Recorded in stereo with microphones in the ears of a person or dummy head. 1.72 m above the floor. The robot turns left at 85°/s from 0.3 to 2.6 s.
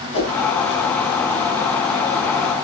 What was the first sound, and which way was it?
A whoosh, 30° left (ahead or behind).